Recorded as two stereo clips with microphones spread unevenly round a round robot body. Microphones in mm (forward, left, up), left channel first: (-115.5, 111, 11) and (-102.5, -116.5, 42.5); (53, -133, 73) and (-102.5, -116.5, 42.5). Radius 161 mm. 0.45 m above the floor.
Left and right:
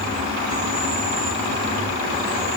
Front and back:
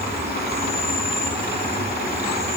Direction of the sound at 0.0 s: 20° right.